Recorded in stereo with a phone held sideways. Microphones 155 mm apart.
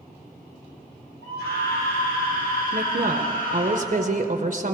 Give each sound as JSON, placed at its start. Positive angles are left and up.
{"t": 1.2, "sound": "a scream", "side_deg": 85, "distance_m": 2.5}
{"t": 2.7, "sound": "a woman speaking", "side_deg": -60, "distance_m": 0.7}